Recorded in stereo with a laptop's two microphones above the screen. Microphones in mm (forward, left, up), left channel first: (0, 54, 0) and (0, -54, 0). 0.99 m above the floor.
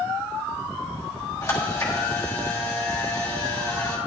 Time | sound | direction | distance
1.4 | a camera shutter | 35° left (ahead or behind) | 3 m